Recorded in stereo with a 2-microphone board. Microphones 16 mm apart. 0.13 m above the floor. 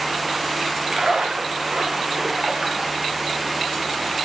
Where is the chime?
No chime in this recording.